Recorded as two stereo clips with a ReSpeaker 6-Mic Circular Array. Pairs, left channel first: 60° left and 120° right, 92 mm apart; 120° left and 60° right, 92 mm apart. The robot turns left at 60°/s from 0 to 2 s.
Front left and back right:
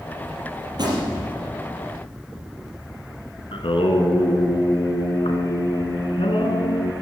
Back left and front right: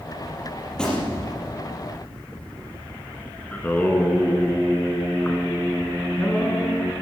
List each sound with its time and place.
0.7 s a gunshot: 155° right, 4.5 m; by 1.4 s 165° left, 4.5 m
3.5 s singing: 45° left, 1.9 m